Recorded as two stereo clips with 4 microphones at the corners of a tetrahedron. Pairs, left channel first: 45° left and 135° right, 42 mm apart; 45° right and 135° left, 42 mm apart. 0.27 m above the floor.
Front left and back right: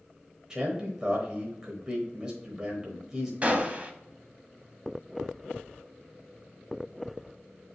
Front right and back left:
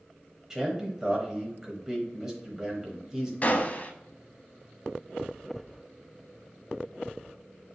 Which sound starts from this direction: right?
A gunshot, at 3.4 s.